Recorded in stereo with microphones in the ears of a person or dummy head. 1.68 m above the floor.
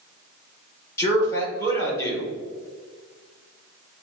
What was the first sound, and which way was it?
A man speaking, 15° left (ahead or behind).